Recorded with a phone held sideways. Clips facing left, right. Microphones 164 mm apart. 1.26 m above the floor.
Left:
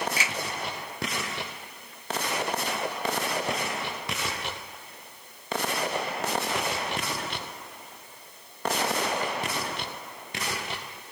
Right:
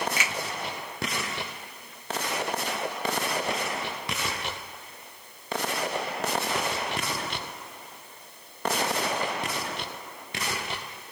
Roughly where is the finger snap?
Left.